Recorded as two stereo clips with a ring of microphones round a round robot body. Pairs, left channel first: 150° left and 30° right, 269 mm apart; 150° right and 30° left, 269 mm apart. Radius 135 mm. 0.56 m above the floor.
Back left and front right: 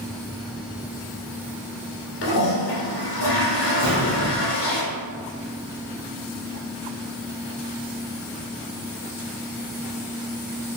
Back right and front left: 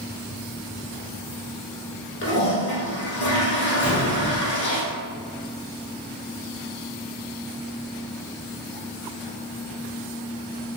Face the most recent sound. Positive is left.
turn(degrees=-110)